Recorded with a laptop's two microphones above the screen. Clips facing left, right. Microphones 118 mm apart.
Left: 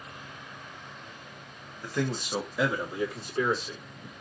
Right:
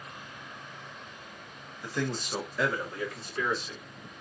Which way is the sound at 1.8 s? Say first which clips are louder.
Left 2 dB; 5° right (ahead or behind).